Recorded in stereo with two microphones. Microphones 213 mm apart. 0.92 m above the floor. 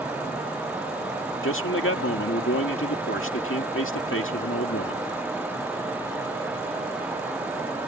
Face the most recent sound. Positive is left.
turn(degrees=75)  # may be behind; listen again after turning